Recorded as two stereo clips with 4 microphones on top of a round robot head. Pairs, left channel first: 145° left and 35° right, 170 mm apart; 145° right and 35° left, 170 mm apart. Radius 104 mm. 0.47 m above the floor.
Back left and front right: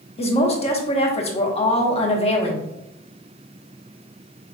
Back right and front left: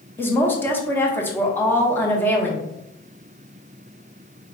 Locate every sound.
0.2 s a woman speaking: 140° left, 1.2 m